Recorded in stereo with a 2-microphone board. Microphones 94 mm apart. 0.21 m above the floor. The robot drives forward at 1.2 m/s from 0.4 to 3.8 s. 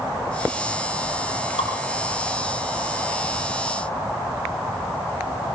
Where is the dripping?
80° left, 6 m.